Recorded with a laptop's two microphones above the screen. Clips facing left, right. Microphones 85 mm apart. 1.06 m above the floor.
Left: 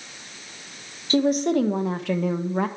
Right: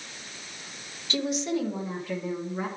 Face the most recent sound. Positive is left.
turn(degrees=70)  # may be behind; listen again after turning